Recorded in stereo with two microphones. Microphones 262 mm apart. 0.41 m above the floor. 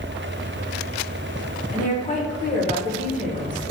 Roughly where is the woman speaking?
Left.